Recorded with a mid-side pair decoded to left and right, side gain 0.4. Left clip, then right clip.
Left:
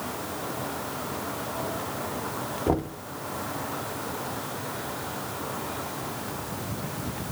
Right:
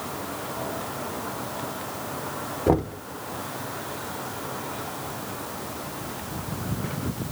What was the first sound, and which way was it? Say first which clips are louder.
Knocking: right 5 dB; 35° right.